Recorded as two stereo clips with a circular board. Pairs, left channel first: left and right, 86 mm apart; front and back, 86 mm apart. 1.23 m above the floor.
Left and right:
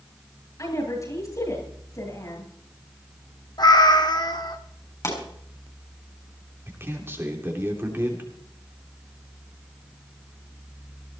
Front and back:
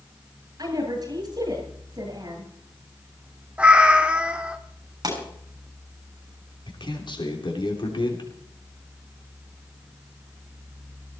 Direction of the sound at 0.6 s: 140° left.